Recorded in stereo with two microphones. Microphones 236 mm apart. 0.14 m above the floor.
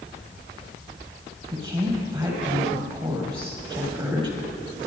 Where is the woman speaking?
20° right (ahead or behind), 4.5 m.